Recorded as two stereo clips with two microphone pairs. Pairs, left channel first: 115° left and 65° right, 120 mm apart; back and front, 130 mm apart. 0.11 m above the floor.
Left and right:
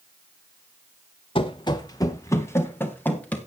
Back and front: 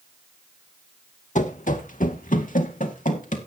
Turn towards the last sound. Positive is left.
turn(degrees=-170)